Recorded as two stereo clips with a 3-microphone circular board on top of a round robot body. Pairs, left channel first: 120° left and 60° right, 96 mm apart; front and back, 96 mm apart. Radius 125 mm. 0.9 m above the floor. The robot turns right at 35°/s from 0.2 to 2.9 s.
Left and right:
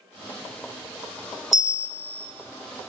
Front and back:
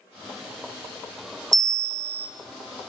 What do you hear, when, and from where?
1.5 s a bell: 145° right, 0.6 m; by 2.3 s 120° right, 0.6 m